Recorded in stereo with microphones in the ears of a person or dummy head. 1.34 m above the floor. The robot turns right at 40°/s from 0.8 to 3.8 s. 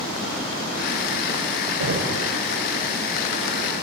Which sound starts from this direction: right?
Knocking, at 1.8 s.